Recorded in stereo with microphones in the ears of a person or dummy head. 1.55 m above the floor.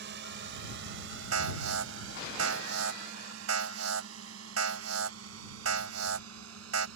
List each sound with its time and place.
0.0 s a drone: 55° right (ahead or behind); by 7.0 s 85° right
1.3 s an alarm: 85° right